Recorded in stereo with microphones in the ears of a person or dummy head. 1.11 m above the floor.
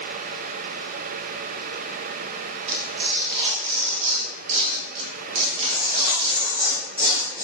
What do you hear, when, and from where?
2.7 s tearing paper: 40° right (ahead or behind), 1.0 m
5.4 s tearing paper: 10° right (ahead or behind), 1.3 m